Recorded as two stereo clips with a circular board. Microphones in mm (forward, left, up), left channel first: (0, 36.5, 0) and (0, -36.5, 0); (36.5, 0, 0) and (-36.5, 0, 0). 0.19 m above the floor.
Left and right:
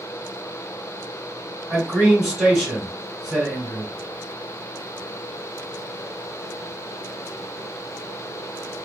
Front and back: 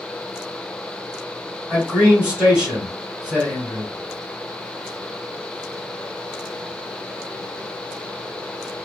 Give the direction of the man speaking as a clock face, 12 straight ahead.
5 o'clock.